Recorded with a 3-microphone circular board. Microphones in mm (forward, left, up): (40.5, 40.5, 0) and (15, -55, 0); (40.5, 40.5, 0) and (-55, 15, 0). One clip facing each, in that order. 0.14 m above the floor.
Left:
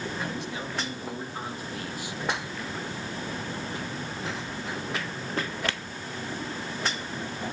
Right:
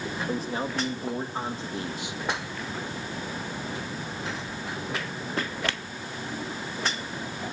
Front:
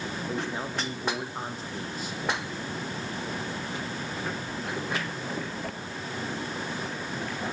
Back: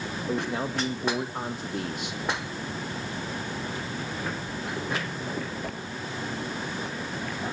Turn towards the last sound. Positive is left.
turn(degrees=-175)